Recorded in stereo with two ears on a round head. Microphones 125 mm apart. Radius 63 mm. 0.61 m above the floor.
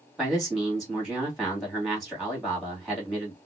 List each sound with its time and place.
0.2 s a man speaking: 5° right (ahead or behind), 1.3 m